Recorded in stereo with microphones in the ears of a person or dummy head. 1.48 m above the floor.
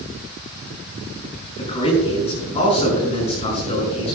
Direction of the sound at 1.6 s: 30° left (ahead or behind).